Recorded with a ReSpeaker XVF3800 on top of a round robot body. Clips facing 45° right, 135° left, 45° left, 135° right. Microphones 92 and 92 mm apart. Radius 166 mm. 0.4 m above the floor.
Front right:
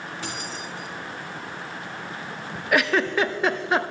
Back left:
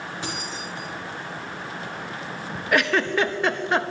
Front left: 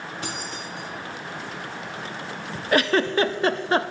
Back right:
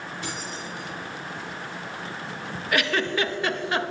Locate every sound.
0.2 s keys jangling: 60° left, 3.5 m
2.7 s a giggle: 40° left, 0.6 m